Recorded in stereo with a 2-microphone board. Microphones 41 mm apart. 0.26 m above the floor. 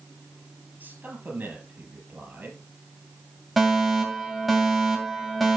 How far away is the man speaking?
About 5 m.